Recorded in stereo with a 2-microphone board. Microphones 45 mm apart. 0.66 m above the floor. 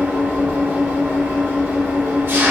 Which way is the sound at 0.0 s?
60° right (ahead or behind).